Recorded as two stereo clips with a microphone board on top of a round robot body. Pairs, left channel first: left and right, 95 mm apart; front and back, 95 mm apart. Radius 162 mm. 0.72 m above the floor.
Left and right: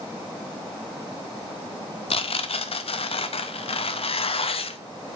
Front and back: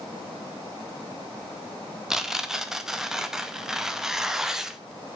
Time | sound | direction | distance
2.1 | tearing paper | 95° left | 0.7 m